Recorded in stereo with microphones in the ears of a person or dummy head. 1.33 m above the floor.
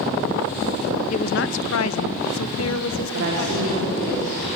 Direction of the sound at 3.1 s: 55° right (ahead or behind).